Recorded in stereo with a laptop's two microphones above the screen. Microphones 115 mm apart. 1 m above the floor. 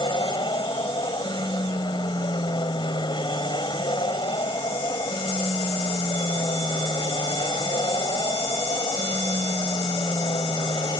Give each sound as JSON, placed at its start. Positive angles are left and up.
{"t": 0.0, "sound": "an aircraft", "side_deg": 40}